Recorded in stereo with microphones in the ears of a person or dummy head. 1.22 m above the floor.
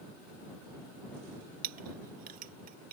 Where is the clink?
45° right (ahead or behind).